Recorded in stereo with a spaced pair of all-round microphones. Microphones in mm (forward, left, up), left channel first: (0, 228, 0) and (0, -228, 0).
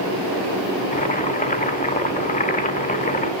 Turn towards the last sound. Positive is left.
turn(degrees=20)  # may be behind; listen again after turning